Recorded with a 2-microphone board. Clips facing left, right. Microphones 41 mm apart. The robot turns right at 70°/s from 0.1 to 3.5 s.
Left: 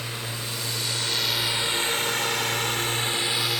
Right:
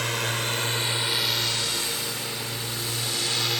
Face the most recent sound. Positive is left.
turn(degrees=5)  # may be behind; listen again after turning